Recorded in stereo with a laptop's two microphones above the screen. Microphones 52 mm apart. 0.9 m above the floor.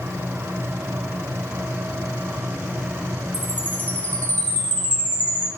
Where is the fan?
80° right, 7 m.